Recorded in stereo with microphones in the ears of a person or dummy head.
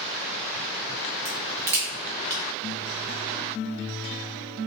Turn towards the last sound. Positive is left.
turn(degrees=-15)  # may be behind; listen again after turning